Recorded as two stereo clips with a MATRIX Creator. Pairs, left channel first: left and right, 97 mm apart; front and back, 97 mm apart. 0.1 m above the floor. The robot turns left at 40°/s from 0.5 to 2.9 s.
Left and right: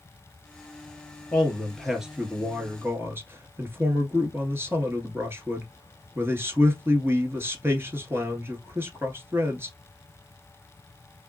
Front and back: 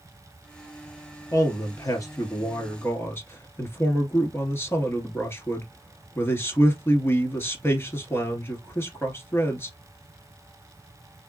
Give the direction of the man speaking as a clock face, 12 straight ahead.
11 o'clock.